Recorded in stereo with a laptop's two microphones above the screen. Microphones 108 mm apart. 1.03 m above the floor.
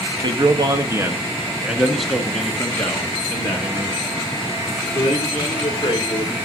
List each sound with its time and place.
0.2 s a man speaking: 45° right (ahead or behind), 1.2 m; by 6.3 s 40° left (ahead or behind), 3.5 m